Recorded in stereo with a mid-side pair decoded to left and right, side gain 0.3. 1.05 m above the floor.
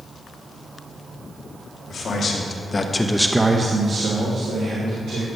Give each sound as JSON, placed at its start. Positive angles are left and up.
{"t": 1.9, "sound": "a man speaking", "azimuth_deg": 70, "distance_m": 1.8}